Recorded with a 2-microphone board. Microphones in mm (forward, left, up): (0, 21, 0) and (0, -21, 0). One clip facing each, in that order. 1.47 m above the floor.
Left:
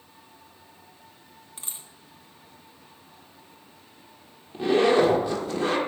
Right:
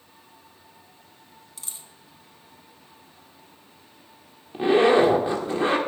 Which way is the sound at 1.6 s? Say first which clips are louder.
Left 1 dB; 35° left (ahead or behind).